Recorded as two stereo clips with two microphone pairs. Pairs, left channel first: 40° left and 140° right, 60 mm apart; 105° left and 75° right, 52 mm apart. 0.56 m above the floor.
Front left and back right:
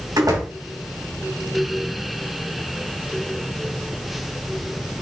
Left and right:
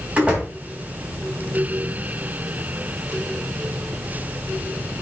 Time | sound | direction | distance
0.2 | a door slam | 145° right | 3 m